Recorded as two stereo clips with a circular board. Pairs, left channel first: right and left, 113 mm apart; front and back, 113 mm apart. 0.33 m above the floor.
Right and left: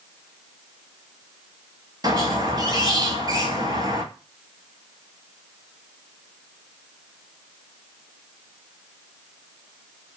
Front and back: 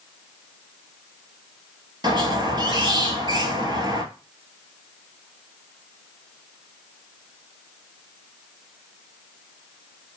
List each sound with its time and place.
2.0 s a squeak: 140° left, 0.6 m